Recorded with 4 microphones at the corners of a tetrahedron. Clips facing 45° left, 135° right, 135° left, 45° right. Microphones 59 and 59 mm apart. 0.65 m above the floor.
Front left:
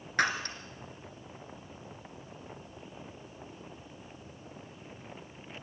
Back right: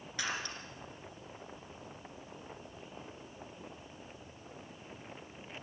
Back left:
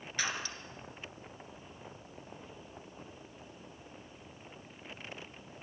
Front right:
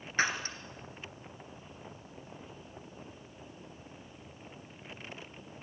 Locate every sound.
0.2 s breaking glass: 10° left, 2.5 m